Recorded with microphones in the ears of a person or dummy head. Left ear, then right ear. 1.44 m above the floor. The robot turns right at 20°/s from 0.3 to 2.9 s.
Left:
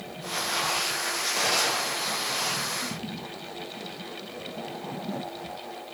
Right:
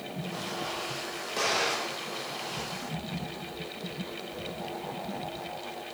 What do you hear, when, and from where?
1.4 s an explosion: 5° left (ahead or behind), 3 m; by 2.0 s 20° left (ahead or behind), 3 m